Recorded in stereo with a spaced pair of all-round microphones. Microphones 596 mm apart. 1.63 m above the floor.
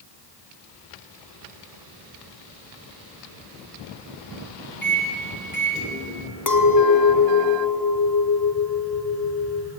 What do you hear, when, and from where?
4.8 s a microwave: 15° left (ahead or behind), 3.5 m
6.5 s a clink: 30° left (ahead or behind), 1.3 m